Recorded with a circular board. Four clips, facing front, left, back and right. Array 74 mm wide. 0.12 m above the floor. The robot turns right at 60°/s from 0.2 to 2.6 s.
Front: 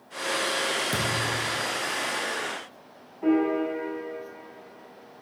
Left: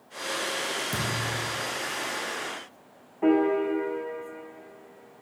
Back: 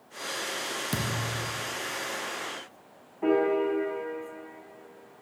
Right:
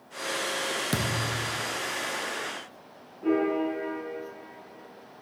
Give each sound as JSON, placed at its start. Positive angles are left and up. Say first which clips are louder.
{"t": 0.9, "sound": "a thud", "louder": "right 1 dB, front 4 dB", "azimuth_deg": -105, "distance_m": 1.2}
{"t": 3.2, "sound": "a piano", "louder": "left 3 dB, front 1 dB", "azimuth_deg": 105, "distance_m": 2.5}